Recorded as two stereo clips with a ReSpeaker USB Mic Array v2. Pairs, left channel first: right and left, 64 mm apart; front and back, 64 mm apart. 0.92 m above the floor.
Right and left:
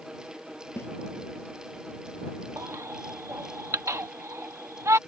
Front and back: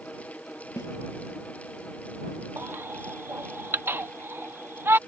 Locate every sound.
0.8 s a snare drum: 40° right
2.6 s a baby crying: 130° left